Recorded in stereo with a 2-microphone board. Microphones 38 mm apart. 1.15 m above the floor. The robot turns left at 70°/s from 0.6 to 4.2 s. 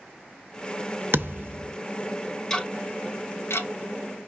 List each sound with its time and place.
1.1 s a thud: 95° right, 0.7 m; by 1.8 s 135° right, 0.7 m
2.5 s ticking: 15° left (ahead or behind), 0.8 m; by 4.3 s 50° left (ahead or behind), 0.8 m